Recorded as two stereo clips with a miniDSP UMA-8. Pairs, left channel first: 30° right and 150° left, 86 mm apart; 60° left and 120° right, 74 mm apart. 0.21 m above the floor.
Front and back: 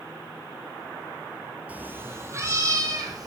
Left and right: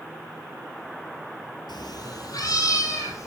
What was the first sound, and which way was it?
A cat meowing, 80° left.